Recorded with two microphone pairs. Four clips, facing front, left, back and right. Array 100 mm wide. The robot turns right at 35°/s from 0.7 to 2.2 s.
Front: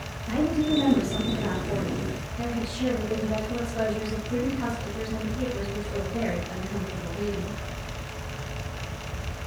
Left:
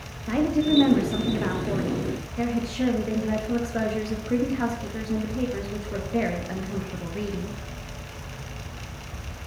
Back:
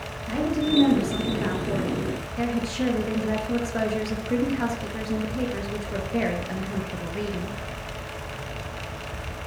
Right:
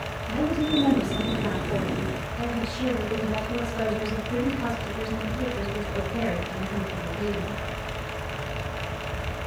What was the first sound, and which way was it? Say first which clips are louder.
A woman speaking: left 3 dB, even; 90° left.